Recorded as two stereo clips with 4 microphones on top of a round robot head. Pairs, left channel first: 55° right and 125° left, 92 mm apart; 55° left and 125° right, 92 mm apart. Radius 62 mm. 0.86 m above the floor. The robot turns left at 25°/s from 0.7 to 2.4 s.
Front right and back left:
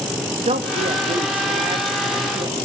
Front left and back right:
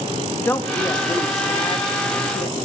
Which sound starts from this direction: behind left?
A woman speaking, at 0.5 s.